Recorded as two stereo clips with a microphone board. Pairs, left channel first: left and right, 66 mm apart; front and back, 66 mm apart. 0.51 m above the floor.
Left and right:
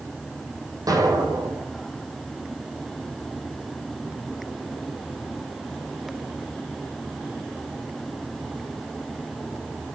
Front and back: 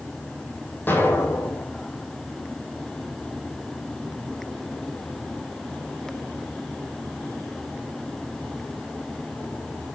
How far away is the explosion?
About 4 m.